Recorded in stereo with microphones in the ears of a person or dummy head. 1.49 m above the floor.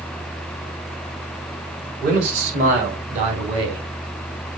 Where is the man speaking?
50° right (ahead or behind), 5 m; by 3.8 s 25° right (ahead or behind), 3 m.